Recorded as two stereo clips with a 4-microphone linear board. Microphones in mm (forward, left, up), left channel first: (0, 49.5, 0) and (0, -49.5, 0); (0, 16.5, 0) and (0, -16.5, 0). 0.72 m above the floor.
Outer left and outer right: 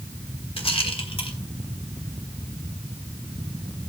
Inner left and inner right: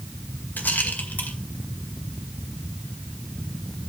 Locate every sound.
0.6 s a rattle: 70° left (ahead or behind), 2 m